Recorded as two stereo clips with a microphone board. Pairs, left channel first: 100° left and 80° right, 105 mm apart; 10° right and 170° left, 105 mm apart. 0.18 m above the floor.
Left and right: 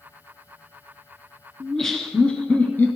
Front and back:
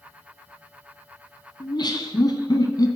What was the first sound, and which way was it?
Laughter, 15° left.